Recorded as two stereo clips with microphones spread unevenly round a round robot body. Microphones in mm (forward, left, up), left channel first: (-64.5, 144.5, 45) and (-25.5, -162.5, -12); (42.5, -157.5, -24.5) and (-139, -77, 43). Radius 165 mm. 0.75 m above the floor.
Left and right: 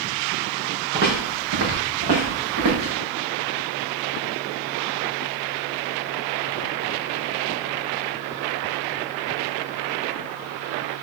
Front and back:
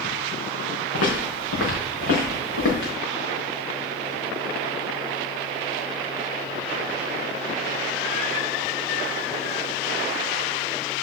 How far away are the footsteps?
About 4 m.